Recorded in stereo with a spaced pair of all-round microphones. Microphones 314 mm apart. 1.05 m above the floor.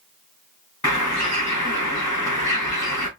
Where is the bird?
55° left (ahead or behind), 2.5 m.